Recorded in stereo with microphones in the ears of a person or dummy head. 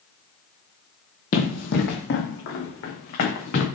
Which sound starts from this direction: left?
Running footsteps, at 1.3 s.